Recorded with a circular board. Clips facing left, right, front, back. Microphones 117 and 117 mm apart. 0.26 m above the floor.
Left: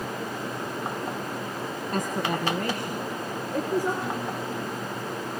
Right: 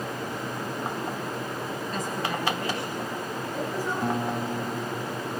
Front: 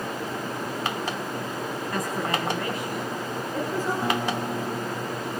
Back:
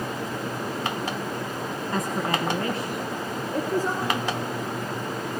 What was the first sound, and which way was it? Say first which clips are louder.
A woman speaking: left 4 dB, back 2 dB; 115° left.